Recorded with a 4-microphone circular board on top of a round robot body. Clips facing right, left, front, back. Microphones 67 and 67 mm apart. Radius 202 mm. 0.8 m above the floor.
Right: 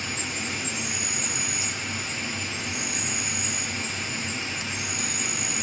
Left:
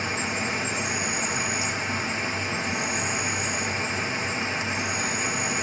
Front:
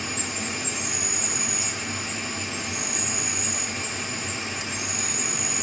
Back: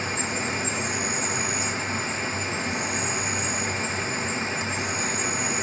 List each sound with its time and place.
0.0 s an insect: 145° left, 1.7 m